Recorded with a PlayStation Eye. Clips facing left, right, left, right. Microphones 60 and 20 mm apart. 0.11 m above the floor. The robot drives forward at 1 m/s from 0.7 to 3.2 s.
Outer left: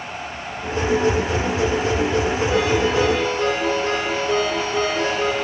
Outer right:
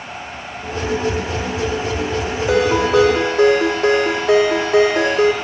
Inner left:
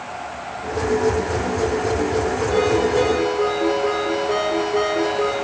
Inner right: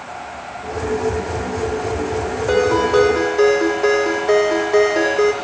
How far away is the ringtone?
About 4.5 m.